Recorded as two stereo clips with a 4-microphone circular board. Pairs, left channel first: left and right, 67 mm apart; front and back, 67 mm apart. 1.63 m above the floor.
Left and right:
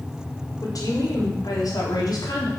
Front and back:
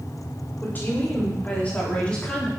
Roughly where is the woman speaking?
Ahead left.